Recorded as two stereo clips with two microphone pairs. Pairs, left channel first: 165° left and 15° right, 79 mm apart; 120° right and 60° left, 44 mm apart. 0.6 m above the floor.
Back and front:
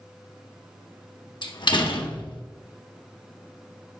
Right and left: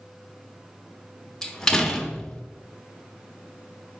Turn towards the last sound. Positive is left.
turn(degrees=165)